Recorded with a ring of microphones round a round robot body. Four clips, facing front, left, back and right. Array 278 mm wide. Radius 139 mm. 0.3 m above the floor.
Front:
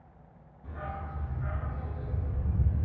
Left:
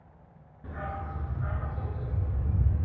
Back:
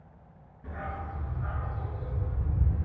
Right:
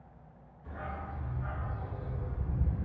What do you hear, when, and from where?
0.6 s a dog barking: 110° left, 1.6 m; by 2.9 s 50° left, 2.5 m